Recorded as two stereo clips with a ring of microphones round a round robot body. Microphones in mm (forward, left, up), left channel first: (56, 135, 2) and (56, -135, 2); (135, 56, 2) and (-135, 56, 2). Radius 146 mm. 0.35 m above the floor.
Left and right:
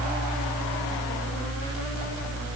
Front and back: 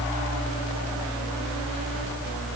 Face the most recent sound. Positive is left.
No sound to turn to.